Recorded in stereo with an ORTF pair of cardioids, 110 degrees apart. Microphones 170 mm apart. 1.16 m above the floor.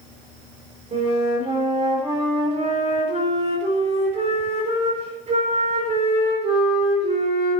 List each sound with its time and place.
0.9 s a flute: 40° right, 4 m